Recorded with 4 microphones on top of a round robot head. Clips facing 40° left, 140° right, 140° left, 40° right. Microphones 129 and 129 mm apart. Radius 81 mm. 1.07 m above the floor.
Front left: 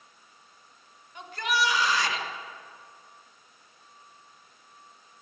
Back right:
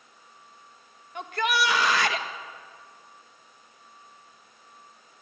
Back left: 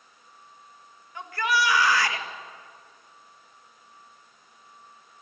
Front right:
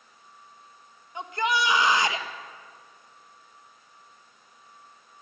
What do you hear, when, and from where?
1.1 s a shout: 110° right, 1.7 m